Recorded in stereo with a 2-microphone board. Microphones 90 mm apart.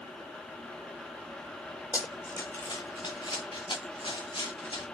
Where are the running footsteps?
35° left (ahead or behind), 0.5 m; by 4.8 s 80° left, 2.5 m.